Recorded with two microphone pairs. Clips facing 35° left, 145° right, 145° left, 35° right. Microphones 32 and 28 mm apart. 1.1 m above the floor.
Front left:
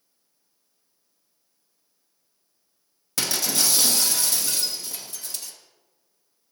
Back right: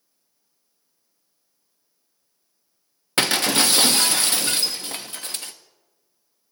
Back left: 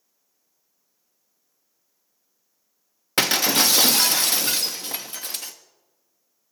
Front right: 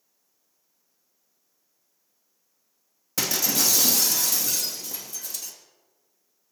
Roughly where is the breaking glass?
Behind.